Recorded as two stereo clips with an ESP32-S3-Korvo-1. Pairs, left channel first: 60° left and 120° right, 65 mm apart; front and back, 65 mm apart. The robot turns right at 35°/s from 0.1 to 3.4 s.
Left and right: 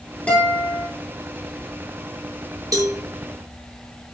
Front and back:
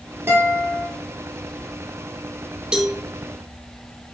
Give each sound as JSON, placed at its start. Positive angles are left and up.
{"t": 0.3, "sound": "a guitar", "azimuth_deg": 130, "distance_m": 5.0}
{"t": 2.7, "sound": "a cowbell", "azimuth_deg": -105, "distance_m": 1.4}